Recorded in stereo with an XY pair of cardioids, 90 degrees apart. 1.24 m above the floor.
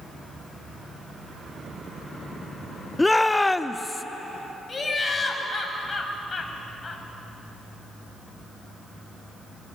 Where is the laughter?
35° left, 6 m.